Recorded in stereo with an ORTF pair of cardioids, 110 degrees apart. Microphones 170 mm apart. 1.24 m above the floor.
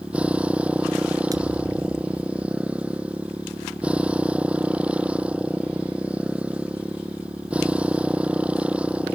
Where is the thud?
20° right.